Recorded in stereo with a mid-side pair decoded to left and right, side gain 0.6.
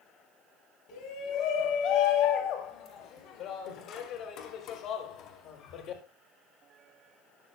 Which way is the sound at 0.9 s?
65° left.